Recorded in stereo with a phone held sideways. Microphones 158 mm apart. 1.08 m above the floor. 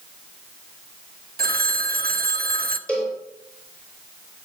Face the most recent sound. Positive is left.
turn(degrees=5)  # may be behind; listen again after turning